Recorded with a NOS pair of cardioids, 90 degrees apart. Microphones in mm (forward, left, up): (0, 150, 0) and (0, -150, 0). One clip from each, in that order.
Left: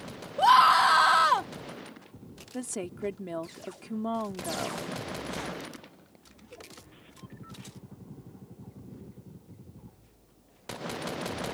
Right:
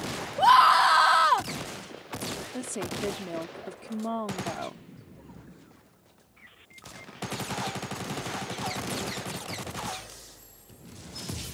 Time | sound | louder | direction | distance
0.4 | a scream | right 1 dB | 5° right | ?
2.5 | a woman speaking | left 3 dB | straight ahead | ?